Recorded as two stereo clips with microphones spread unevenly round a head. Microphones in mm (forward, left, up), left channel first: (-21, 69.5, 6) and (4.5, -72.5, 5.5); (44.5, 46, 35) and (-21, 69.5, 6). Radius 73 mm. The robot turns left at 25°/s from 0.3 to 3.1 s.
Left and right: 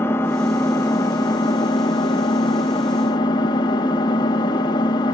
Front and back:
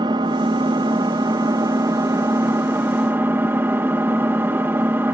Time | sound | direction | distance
0.0 | an engine running | 155° left | 0.8 m